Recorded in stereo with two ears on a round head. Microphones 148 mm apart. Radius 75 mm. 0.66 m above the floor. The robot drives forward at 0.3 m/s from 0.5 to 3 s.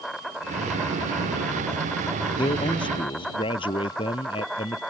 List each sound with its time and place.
0.0 s an insect: centre (ahead or behind)
2.4 s a man speaking: 30° left (ahead or behind)